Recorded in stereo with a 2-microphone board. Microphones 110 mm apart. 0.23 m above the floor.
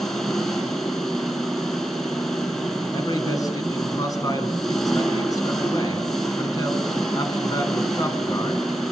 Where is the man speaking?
30° left (ahead or behind), 3 m.